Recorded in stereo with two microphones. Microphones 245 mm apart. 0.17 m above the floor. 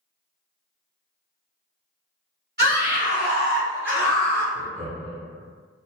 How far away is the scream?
About 1.8 m.